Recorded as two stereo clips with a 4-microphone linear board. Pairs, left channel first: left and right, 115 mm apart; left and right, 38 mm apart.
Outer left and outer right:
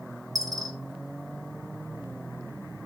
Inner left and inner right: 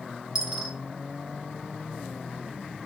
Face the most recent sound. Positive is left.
turn(degrees=-30)  # may be behind; listen again after turning